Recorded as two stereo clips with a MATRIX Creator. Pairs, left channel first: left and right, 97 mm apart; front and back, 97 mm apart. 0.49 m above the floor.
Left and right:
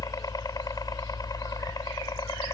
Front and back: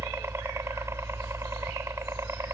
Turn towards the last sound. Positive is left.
turn(degrees=125)